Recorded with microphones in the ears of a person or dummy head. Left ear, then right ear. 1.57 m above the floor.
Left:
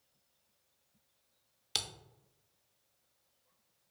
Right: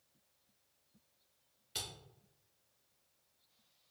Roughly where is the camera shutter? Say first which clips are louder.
Left 7 dB; left.